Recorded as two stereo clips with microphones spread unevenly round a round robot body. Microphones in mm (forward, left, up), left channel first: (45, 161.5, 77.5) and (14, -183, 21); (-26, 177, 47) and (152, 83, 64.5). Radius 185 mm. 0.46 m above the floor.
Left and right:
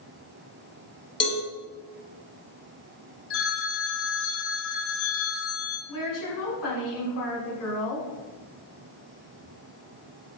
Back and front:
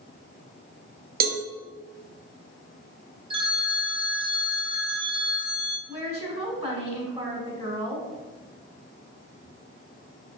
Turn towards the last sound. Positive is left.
turn(degrees=35)